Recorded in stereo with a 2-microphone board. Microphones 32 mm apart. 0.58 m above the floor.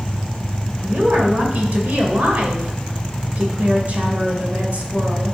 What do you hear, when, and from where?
0.8 s a woman speaking: 50° right (ahead or behind), 2 m